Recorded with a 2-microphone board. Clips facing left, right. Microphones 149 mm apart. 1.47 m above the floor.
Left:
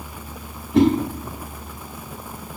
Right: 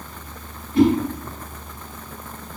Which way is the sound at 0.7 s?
80° left.